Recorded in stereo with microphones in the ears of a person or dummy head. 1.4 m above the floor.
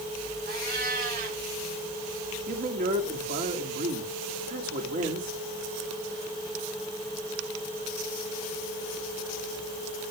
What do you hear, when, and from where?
0.5 s a cat meowing: 55° right (ahead or behind), 5.5 m
2.5 s a man speaking: 45° right (ahead or behind), 2.5 m